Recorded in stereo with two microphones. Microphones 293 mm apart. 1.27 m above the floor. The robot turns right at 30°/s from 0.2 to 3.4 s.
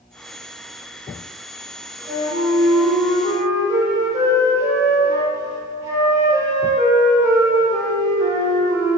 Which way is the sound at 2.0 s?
150° left.